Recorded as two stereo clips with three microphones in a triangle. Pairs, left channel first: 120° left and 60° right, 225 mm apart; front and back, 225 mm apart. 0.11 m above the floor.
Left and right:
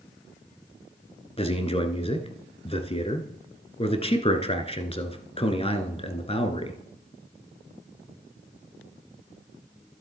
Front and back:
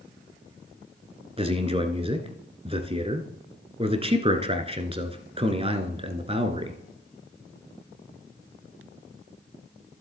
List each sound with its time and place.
1.4 s a man speaking: 150° left, 1.2 m